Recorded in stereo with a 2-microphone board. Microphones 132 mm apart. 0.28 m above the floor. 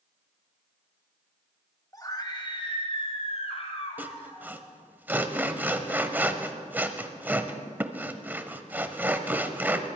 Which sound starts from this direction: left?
A scream, at 1.9 s.